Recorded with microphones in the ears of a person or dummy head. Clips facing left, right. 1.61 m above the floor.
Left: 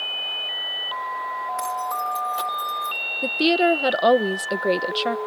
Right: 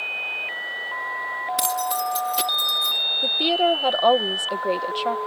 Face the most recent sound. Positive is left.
turn(degrees=20)  # may be behind; listen again after turning